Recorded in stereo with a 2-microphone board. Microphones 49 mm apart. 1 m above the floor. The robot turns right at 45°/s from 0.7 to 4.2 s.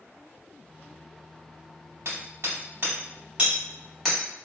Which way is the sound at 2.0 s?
75° right (ahead or behind).